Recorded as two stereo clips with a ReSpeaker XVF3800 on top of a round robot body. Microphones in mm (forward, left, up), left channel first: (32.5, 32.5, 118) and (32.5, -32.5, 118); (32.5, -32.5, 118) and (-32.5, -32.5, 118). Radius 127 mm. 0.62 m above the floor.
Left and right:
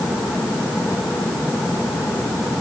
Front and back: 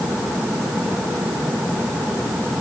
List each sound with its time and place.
Only background noise.